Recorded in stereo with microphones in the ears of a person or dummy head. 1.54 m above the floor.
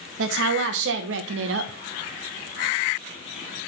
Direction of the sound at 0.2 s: 75° right (ahead or behind).